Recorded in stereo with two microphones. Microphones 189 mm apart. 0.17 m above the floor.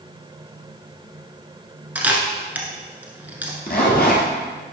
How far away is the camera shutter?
About 1.1 m.